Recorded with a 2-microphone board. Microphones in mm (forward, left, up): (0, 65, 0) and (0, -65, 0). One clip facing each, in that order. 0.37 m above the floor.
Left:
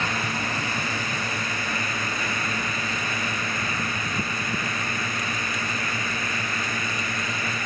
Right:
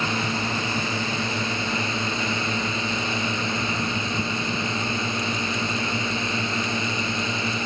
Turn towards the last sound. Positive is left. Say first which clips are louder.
# right 2 dB
turn(degrees=-25)  # may be behind; listen again after turning